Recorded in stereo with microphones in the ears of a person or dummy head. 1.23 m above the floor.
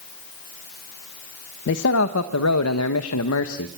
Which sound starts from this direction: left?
A man speaking, at 1.7 s.